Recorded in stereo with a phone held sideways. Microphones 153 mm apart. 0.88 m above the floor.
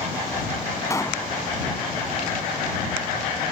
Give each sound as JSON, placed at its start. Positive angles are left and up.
{"t": 0.9, "sound": "a pop", "side_deg": 20}